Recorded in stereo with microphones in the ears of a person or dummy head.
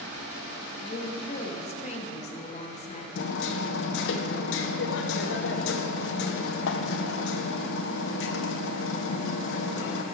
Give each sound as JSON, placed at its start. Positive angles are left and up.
{"t": 0.8, "sound": "a woman speaking", "side_deg": 40, "distance_m": 1.7}
{"t": 3.1, "sound": "hammering", "side_deg": 70, "distance_m": 0.9}